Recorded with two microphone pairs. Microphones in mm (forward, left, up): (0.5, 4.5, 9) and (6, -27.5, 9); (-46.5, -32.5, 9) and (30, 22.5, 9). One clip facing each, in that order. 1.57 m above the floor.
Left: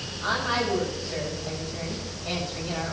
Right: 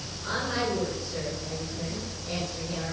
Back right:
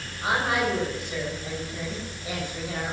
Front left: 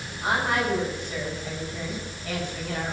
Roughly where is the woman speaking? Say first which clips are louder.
Left 3 dB, even; behind left.